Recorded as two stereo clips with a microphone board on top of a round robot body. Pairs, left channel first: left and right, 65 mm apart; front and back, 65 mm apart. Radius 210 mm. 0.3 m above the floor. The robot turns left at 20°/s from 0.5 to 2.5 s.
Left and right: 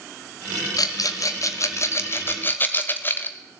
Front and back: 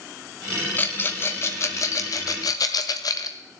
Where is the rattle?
65° left, 0.7 m; by 3.4 s 30° left, 0.7 m.